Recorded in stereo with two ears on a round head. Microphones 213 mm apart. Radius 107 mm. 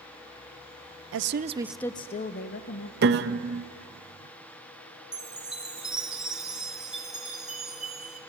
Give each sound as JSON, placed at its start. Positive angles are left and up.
{"t": 1.1, "sound": "a woman speaking", "side_deg": -55, "distance_m": 0.6}
{"t": 3.0, "sound": "a piano", "side_deg": -40, "distance_m": 0.7}
{"t": 5.1, "sound": "a chime", "side_deg": 0, "distance_m": 1.7}